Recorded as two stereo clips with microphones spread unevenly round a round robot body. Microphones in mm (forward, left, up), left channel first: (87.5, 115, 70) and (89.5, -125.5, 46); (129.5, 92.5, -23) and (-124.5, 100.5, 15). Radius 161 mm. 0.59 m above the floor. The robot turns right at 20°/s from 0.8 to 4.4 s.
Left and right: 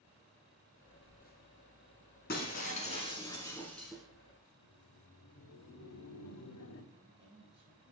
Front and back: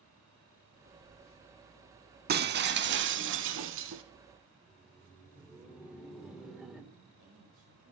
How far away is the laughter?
About 1.7 m.